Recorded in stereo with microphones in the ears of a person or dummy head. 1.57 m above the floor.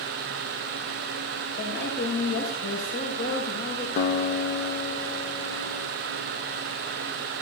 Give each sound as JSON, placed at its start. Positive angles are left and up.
{"t": 1.6, "sound": "a woman speaking", "side_deg": 50, "distance_m": 8.0}
{"t": 4.0, "sound": "a guitar", "side_deg": 60, "distance_m": 0.8}